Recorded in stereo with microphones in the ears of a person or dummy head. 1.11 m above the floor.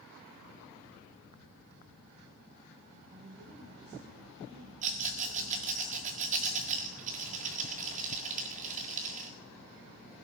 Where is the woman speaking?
20° right (ahead or behind), 7.5 m.